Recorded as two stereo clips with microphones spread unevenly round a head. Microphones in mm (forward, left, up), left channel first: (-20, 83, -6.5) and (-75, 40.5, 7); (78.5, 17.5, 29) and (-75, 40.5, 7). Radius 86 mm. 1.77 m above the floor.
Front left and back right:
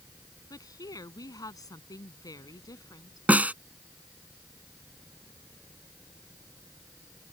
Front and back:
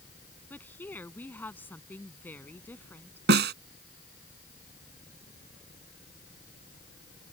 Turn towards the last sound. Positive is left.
turn(degrees=155)